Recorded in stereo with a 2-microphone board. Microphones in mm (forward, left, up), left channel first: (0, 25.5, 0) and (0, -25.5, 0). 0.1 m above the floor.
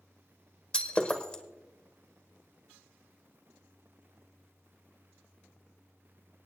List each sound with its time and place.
0.7 s breaking glass: 25° left (ahead or behind), 1.3 m